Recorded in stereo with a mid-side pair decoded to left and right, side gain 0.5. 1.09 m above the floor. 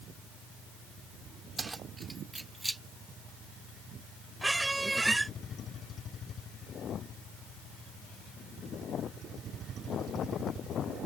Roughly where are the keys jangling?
Ahead.